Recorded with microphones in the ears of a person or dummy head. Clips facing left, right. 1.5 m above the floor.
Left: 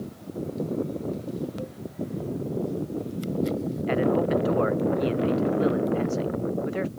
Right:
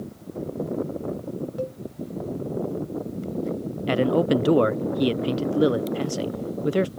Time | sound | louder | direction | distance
1.6 | a cowbell | right 6 dB | 55° right (ahead or behind) | ?
3.9 | a man speaking | right 3 dB | 50° right (ahead or behind) | ?